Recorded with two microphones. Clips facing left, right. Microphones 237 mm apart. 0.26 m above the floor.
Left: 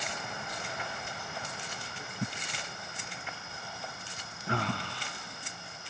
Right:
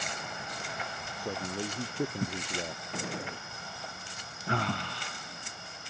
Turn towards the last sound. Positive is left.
turn(degrees=-70)  # may be behind; listen again after turning